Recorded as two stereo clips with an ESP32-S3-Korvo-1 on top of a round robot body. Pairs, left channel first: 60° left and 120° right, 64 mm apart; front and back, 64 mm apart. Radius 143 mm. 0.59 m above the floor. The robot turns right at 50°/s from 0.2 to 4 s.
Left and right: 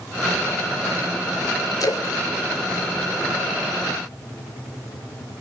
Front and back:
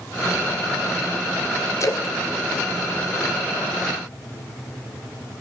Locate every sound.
1.8 s a splash: 35° left, 3.5 m; by 3.8 s 135° left, 3.5 m